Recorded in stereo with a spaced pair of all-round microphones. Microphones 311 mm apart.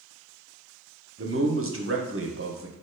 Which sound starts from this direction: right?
A man speaking, at 1.2 s.